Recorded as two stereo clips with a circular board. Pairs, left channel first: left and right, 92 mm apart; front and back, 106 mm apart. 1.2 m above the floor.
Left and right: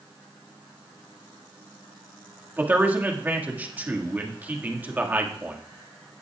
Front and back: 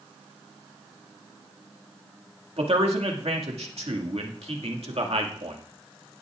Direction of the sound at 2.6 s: 160° right.